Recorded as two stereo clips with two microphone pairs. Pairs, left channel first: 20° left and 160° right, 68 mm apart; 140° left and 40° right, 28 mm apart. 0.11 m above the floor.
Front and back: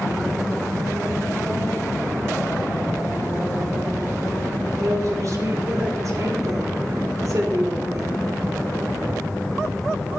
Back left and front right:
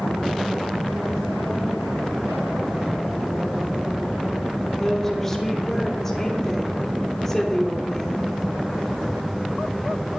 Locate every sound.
4.8 s a woman speaking: 145° right, 3 m